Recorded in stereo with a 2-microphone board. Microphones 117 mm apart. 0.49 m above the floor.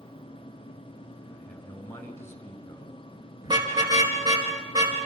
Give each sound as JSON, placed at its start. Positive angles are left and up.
{"t": 1.3, "sound": "a man speaking", "side_deg": 20, "distance_m": 6.0}
{"t": 3.4, "sound": "a car horn", "side_deg": -35, "distance_m": 4.5}